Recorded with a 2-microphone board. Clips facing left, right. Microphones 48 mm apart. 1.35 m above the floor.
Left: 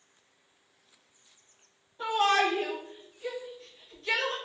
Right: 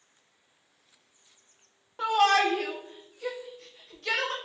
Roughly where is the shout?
Right.